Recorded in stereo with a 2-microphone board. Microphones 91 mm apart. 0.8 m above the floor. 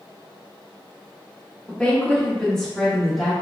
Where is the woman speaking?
15° left (ahead or behind), 1.0 m; by 3.3 s centre (ahead or behind), 1.1 m.